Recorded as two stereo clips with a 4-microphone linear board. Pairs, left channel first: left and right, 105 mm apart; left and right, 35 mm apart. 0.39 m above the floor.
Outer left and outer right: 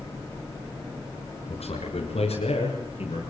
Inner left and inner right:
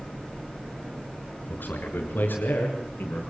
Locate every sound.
1.5 s a man speaking: 70° left (ahead or behind), 5.5 m